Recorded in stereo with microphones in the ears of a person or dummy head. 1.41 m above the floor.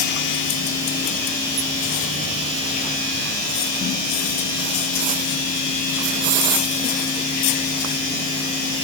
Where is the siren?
No siren in this recording.